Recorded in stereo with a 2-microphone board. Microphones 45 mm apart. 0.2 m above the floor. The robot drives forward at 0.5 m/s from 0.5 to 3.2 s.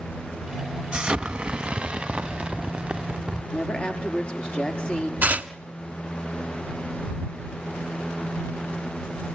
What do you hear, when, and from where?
0.9 s an explosion: 20° right (ahead or behind), 1.4 m; by 3.4 s 25° right (ahead or behind), 1.0 m
3.5 s a woman speaking: 25° left (ahead or behind), 5 m
5.2 s tearing paper: 35° right (ahead or behind), 1.0 m